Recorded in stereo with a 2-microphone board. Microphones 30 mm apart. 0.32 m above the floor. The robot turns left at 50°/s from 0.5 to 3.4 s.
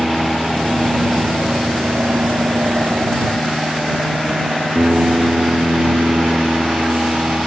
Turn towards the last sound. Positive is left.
turn(degrees=-145)